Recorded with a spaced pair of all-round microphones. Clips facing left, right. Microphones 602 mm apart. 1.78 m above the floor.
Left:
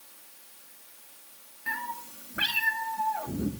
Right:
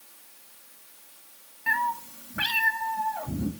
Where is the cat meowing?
20° right (ahead or behind), 1.4 m; by 3.5 s 25° right (ahead or behind), 3 m.